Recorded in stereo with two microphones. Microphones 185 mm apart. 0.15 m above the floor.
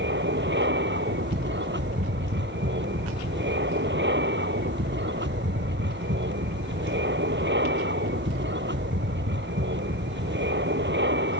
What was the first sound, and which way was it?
An aircraft, 70° right (ahead or behind).